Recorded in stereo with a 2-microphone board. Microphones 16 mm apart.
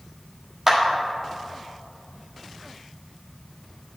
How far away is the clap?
About 1.4 m.